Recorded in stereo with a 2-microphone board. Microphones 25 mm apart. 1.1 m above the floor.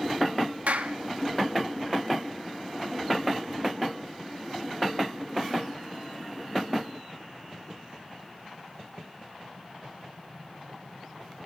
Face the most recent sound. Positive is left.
turn(degrees=-75)  # may be behind; listen again after turning